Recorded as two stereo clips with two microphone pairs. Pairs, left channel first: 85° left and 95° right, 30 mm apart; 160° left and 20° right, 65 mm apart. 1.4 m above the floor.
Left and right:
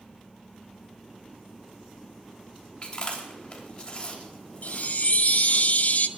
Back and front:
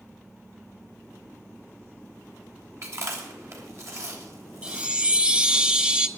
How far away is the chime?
About 0.8 m.